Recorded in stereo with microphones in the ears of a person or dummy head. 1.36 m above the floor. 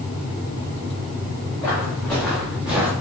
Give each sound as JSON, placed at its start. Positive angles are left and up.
{"t": 1.6, "sound": "footsteps", "side_deg": 10, "distance_m": 3.5}